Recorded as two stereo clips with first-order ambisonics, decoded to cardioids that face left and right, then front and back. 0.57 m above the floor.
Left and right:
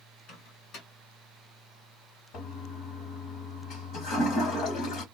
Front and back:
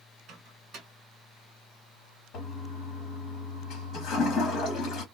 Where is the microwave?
125° left, 1.5 m.